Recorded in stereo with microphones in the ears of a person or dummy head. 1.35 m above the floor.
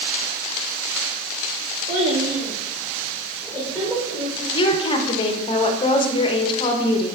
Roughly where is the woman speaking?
Left.